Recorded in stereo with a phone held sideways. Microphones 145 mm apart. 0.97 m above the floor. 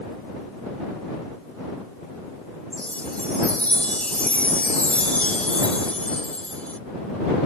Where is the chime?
10° left (ahead or behind).